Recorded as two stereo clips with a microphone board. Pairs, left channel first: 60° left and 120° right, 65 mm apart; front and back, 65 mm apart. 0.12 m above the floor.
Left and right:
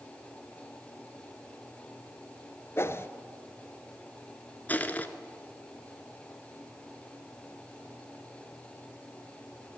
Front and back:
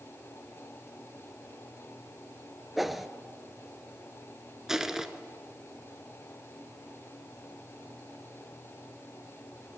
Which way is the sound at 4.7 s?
100° left.